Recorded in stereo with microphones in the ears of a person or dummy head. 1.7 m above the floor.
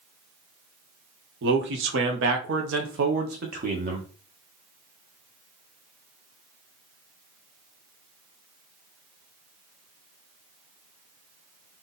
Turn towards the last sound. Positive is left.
turn(degrees=-35)  # may be behind; listen again after turning